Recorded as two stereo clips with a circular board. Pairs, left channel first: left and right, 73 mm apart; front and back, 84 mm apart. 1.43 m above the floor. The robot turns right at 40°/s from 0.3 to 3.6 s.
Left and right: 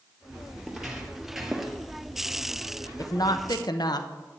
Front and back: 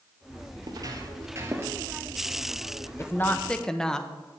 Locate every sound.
0.6 s footsteps: straight behind, 2.0 m; by 1.8 s 175° right, 1.6 m
3.0 s a woman speaking: 55° left, 0.8 m; by 4.1 s 80° left, 0.8 m